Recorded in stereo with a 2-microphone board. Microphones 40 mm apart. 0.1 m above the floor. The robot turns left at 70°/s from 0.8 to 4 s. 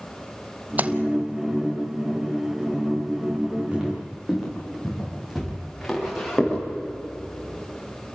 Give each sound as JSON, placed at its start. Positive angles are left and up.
{"t": 0.8, "sound": "a splash", "side_deg": -35, "distance_m": 0.8}
{"t": 3.7, "sound": "footsteps", "side_deg": -30, "distance_m": 9.5}